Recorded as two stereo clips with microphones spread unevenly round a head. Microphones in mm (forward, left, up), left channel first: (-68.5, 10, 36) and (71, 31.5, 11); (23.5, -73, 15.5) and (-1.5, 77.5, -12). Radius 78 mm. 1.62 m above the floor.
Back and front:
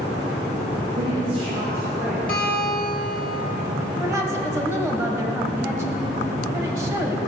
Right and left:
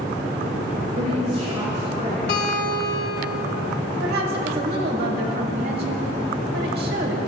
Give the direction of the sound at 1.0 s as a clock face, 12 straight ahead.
10 o'clock.